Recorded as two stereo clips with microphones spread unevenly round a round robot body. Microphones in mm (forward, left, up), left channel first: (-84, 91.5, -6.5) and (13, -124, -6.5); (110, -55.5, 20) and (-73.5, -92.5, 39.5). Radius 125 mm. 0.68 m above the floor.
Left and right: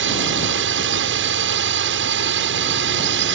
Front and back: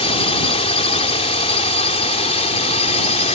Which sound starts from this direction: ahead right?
A drone, at 0.0 s.